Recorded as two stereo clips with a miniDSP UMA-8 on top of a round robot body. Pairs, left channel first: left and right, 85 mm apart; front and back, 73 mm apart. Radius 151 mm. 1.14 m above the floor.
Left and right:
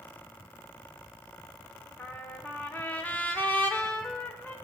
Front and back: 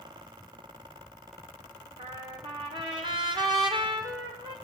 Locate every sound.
2.0 s a trumpet: 165° left, 1.4 m